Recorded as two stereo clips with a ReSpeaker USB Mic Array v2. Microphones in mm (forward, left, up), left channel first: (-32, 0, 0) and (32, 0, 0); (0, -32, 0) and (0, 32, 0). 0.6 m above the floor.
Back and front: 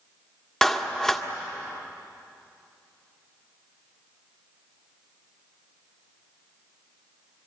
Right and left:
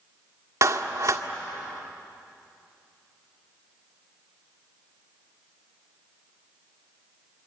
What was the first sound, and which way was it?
A clap, 100° left.